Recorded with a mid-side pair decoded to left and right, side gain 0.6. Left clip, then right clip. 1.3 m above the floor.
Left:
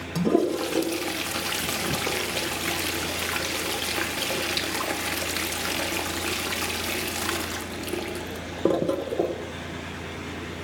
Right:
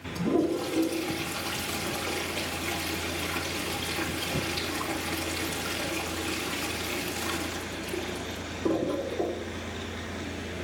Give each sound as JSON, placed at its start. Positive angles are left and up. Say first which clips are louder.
{"t": 0.1, "sound": "a toilet flushing", "louder": "left 4 dB", "azimuth_deg": 50, "distance_m": 1.4}